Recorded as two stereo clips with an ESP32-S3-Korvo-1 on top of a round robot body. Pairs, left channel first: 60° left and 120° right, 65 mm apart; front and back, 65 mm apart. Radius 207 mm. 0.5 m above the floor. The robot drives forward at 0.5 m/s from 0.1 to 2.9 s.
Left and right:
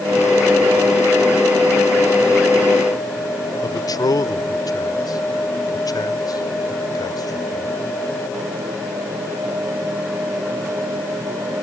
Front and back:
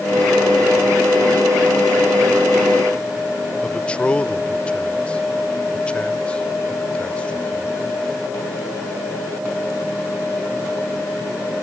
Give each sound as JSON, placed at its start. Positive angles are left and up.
{"t": 3.6, "sound": "a man speaking", "azimuth_deg": 70}